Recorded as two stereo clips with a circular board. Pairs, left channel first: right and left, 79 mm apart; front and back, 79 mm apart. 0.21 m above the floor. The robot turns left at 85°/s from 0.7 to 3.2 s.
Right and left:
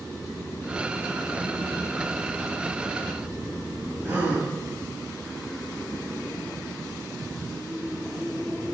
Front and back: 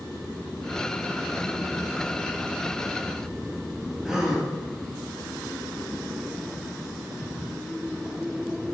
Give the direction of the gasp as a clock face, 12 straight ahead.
8 o'clock.